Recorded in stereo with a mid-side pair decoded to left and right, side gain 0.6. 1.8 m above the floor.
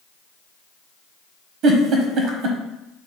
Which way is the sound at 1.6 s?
60° right.